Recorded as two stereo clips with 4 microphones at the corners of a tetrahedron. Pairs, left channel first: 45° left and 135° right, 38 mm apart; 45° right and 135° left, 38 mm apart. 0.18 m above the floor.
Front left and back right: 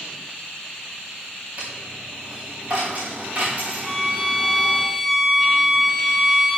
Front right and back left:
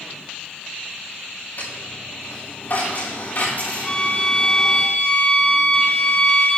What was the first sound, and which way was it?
A dropped coin, 80° right.